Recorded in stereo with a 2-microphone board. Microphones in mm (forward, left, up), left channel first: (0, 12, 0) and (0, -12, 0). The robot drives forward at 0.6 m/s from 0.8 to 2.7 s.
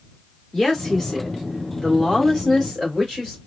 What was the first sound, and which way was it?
A woman speaking, 10° left (ahead or behind).